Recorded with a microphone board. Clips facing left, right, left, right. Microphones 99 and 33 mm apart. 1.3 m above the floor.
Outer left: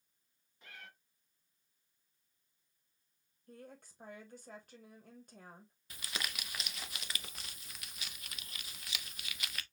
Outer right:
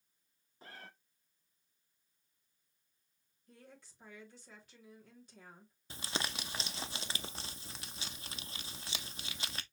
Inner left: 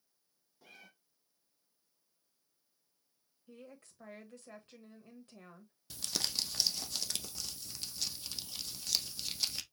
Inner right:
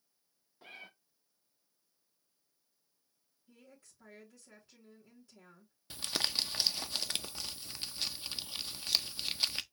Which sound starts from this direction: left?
A woman speaking, at 3.5 s.